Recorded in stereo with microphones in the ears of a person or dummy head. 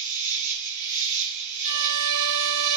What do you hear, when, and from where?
0.0 s an insect: 55° right (ahead or behind), 1.3 m
1.6 s a violin: 75° right (ahead or behind), 0.6 m